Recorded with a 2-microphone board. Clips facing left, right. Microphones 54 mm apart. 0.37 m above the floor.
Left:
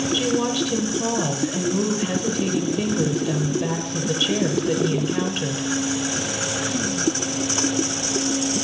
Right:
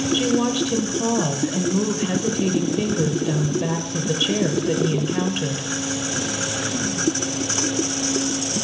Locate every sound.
0.1 s a woman speaking: 5° right (ahead or behind), 1.1 m